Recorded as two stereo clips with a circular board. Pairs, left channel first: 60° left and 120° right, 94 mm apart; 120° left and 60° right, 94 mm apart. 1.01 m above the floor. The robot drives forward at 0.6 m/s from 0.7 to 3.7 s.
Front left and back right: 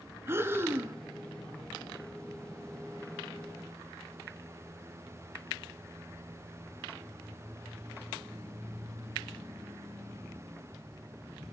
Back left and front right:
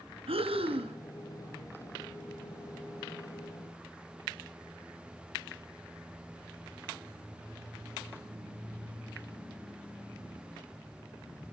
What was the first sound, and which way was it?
Breathing, 55° right.